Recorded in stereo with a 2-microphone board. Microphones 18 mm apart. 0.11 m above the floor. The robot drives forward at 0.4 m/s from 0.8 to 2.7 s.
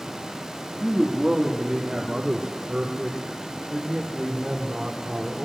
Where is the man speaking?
65° right (ahead or behind), 3 m; by 5.5 s 70° right (ahead or behind), 3 m.